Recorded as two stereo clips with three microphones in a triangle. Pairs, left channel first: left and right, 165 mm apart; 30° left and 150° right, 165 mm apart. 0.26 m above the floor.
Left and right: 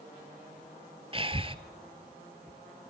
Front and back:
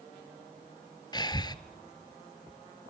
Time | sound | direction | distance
1.1 | breathing | 35° right | 1.0 m